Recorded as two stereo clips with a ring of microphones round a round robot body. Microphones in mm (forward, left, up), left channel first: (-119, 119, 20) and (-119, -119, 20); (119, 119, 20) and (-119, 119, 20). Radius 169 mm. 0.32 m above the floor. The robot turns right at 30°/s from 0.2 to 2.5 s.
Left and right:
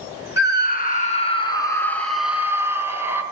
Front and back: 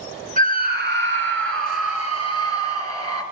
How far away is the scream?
About 4 m.